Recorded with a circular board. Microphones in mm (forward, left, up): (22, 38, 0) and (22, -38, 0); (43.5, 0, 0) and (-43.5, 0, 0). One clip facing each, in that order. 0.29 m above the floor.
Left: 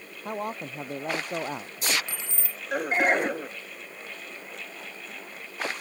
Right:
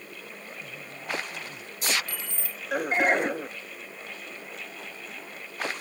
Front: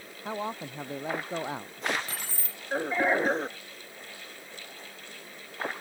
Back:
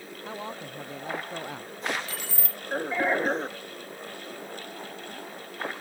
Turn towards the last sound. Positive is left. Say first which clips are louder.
# even, back 3 dB
turn(degrees=30)